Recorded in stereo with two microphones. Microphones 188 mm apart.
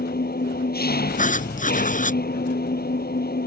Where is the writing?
45° left (ahead or behind).